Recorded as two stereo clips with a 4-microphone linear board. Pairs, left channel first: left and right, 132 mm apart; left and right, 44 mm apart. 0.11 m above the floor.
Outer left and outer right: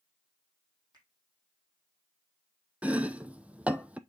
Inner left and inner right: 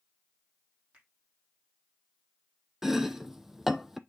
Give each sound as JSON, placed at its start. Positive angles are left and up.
{"t": 0.9, "sound": "a finger snap", "side_deg": -30, "distance_m": 4.0}
{"t": 2.8, "sound": "chopping", "side_deg": -10, "distance_m": 0.6}